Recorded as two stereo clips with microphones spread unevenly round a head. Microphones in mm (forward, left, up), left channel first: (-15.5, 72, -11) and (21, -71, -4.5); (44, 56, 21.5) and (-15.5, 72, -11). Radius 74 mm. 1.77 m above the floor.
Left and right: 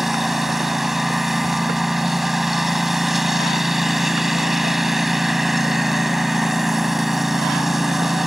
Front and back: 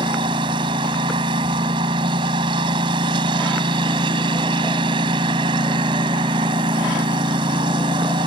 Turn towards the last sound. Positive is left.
turn(degrees=-165)